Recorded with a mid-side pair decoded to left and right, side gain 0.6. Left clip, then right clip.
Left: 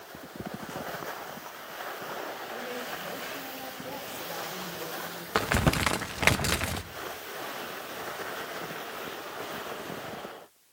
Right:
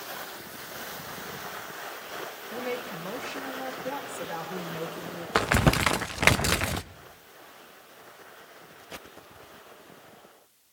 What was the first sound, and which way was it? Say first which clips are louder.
A woman speaking: right 2 dB; 35° right.